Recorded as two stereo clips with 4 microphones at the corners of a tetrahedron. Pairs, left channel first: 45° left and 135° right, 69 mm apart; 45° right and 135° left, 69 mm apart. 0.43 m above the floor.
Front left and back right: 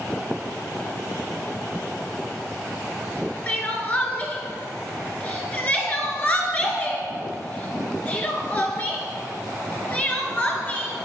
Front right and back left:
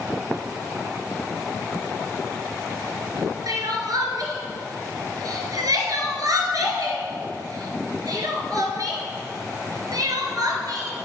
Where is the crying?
110° left, 1.8 m.